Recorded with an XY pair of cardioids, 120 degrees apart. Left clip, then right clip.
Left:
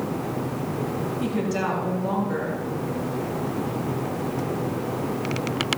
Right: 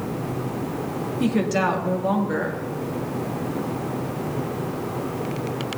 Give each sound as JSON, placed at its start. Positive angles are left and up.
{"t": 1.2, "sound": "a woman speaking", "azimuth_deg": -40, "distance_m": 2.0}